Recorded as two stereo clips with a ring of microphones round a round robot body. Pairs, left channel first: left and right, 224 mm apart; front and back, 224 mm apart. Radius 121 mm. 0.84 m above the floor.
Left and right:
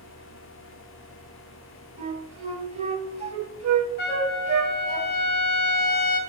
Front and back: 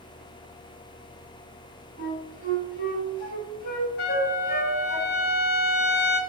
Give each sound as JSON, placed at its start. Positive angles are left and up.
{"t": 2.0, "sound": "a flute", "azimuth_deg": -40, "distance_m": 0.9}
{"t": 4.0, "sound": "a trumpet", "azimuth_deg": 45, "distance_m": 0.6}